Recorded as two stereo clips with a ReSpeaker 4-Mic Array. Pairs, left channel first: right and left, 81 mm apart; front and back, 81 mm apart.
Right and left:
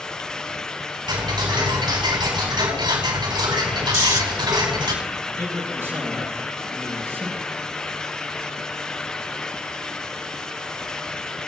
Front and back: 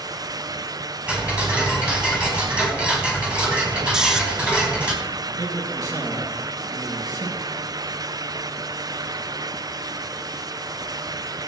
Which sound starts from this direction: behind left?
A man speaking, at 5.3 s.